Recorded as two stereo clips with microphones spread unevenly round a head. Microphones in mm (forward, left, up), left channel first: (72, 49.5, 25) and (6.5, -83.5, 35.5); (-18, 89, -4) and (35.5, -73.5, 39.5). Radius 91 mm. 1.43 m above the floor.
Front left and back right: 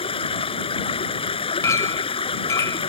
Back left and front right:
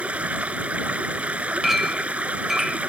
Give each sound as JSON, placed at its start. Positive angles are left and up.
{"t": 0.0, "sound": "running water", "azimuth_deg": 10}
{"t": 1.6, "sound": "a clink", "azimuth_deg": 0}